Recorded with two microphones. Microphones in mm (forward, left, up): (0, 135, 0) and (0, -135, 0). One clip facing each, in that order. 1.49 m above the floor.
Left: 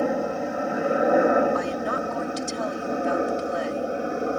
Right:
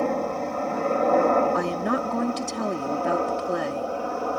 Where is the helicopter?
10° left (ahead or behind); by 4.4 s 20° left (ahead or behind).